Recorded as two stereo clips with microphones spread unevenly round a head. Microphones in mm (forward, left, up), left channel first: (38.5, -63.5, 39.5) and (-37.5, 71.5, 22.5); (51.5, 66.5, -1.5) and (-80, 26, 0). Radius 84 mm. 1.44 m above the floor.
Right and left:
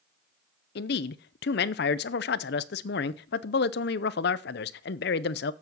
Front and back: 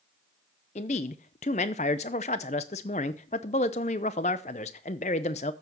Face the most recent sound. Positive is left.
turn(degrees=-40)